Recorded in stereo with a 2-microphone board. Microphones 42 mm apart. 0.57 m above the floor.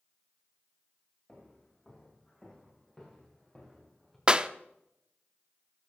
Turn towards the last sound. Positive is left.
turn(degrees=-25)  # may be behind; listen again after turning